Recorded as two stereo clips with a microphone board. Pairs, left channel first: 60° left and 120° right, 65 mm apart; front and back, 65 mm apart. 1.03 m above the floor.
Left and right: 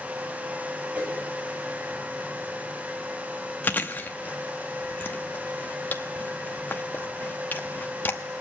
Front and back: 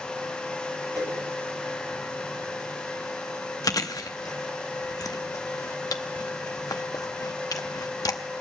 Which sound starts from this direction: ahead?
Chewing, at 3.6 s.